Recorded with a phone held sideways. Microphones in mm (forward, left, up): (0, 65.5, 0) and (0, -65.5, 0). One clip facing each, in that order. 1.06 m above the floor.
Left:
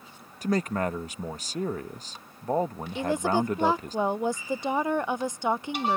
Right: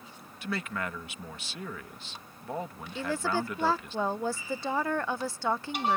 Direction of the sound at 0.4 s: 40° left (ahead or behind).